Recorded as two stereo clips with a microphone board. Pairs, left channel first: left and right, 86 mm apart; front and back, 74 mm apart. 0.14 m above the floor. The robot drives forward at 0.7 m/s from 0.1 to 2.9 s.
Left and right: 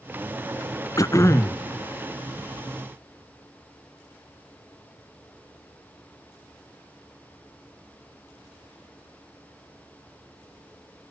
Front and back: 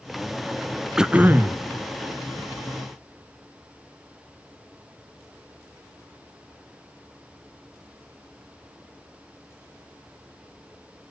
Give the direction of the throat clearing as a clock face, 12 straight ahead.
9 o'clock.